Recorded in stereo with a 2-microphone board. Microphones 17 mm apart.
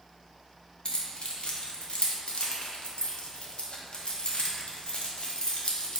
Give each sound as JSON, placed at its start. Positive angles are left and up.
{"t": 0.8, "sound": "keys jangling", "side_deg": 60, "distance_m": 0.8}